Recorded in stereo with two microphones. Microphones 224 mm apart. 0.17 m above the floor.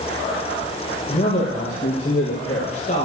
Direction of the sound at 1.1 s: 35° left (ahead or behind).